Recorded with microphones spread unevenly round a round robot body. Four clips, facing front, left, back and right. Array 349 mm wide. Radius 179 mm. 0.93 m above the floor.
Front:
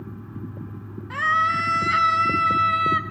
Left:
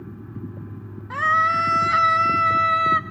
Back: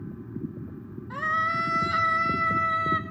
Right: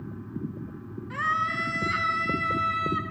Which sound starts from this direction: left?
A scream, at 1.1 s.